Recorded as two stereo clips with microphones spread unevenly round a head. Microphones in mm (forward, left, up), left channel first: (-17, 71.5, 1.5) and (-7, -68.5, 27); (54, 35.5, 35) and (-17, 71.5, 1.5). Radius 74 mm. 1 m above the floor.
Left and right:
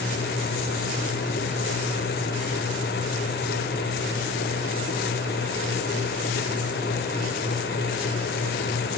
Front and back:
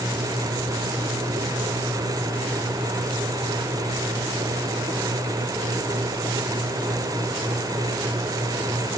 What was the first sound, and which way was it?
Only background noise.